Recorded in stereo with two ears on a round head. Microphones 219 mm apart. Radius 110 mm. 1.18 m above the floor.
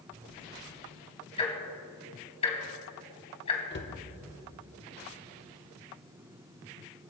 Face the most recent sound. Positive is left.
turn(degrees=45)  # may be behind; listen again after turning